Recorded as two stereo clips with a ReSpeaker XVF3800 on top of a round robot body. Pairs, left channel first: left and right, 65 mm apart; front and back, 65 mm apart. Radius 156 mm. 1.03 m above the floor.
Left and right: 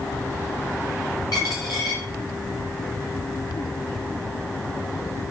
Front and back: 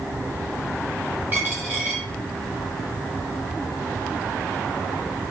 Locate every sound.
1.3 s a dropped coin: 110° left, 0.9 m